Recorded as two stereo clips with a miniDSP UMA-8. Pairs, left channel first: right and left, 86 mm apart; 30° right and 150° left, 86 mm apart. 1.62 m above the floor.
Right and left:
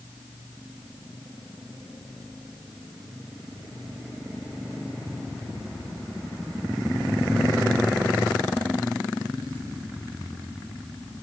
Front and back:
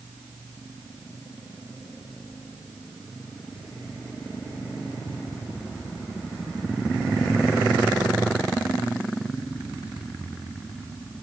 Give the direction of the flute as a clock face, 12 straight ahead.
No flute in this recording.